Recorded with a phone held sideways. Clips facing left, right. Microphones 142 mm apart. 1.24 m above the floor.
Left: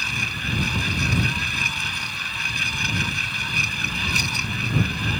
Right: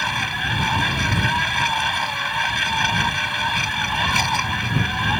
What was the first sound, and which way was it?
A machine running, 65° right (ahead or behind).